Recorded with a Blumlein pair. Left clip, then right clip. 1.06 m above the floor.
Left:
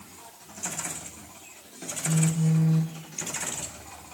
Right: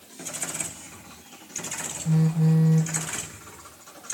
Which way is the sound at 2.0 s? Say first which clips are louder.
Right 1 dB; 15° right.